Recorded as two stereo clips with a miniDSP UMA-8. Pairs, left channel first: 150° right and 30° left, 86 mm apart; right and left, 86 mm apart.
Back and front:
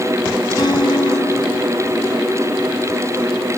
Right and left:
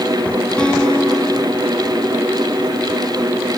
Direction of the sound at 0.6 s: 170° right.